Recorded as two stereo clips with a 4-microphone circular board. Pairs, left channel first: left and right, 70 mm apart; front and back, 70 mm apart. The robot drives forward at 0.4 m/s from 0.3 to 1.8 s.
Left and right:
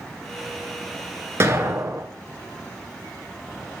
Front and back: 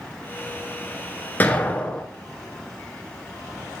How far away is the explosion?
About 1.0 m.